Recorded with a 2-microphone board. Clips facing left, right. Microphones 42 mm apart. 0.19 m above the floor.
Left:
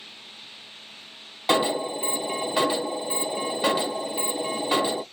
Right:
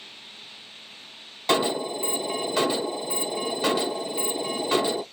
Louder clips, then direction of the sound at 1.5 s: Left 1 dB; 15° left (ahead or behind).